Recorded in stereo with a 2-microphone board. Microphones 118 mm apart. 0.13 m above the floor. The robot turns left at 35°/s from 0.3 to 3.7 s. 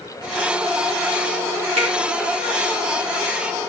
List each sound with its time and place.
1.8 s a finger snap: 60° right (ahead or behind), 3.5 m; by 1.9 s 65° right (ahead or behind), 3.5 m